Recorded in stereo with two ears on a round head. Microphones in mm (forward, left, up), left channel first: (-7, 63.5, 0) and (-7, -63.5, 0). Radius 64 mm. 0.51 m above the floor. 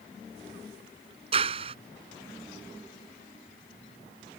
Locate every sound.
1.3 s a clap: 40° right (ahead or behind)